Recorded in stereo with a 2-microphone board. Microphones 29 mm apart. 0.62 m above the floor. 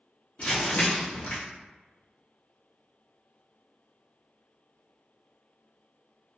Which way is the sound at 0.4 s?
50° left (ahead or behind).